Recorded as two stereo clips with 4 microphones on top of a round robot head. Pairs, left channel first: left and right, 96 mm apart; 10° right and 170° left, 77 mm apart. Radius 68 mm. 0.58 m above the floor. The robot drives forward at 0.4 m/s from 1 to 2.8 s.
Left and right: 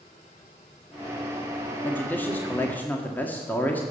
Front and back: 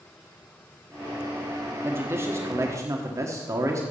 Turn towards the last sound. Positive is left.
turn(degrees=155)